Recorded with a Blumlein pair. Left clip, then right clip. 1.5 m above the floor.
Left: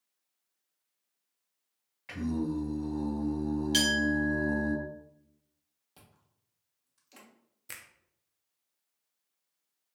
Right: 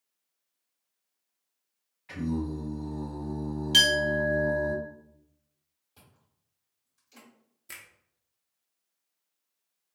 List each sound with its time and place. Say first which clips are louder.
2.1 s singing: even; 60° left, 1.7 m
3.7 s a clink: right 6 dB; straight ahead, 1.1 m
6.0 s chewing: even; 20° left, 1.0 m
7.7 s a finger snap: right 1 dB; 10° left, 0.5 m